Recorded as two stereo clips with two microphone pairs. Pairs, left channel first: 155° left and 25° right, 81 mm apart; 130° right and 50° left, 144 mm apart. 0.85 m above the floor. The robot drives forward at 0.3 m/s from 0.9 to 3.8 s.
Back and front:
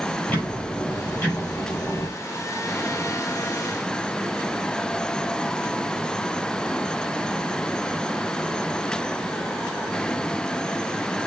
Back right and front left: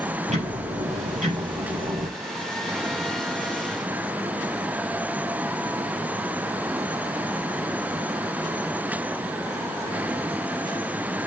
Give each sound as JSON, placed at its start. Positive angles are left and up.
{"t": 0.3, "sound": "ticking", "azimuth_deg": 90, "distance_m": 6.0}